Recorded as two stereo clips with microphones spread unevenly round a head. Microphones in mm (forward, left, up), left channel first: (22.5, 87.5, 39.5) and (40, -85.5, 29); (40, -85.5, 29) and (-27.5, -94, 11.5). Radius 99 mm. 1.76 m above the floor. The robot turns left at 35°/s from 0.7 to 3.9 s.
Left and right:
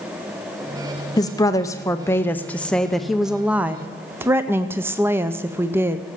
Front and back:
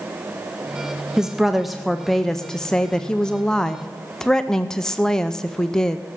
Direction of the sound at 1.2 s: 85° left.